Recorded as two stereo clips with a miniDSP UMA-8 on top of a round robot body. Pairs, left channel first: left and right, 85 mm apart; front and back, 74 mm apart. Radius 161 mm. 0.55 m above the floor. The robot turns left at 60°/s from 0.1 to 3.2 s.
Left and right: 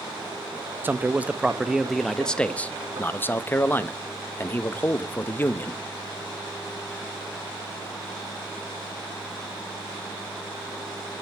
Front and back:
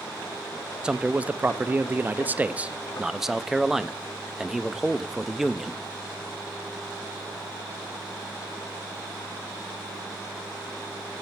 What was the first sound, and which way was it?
A man speaking, 115° right.